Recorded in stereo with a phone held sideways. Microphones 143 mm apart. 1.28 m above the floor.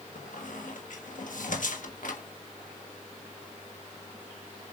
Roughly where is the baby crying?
I don't hear a baby crying.